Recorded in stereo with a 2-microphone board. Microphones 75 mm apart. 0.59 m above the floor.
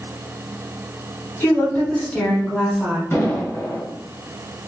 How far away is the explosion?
About 1.4 m.